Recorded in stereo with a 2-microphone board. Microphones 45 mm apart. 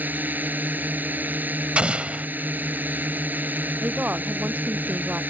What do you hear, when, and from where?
0.0 s a drone: 40° right (ahead or behind)
1.8 s an explosion: 30° right (ahead or behind)
3.8 s a woman speaking: 35° right (ahead or behind)